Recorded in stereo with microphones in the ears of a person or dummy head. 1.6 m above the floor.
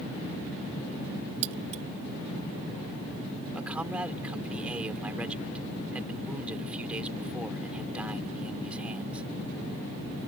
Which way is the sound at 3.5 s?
10° right (ahead or behind).